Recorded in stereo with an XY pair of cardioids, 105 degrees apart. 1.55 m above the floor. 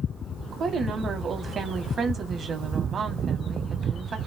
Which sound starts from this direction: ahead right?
A woman speaking, at 0.5 s.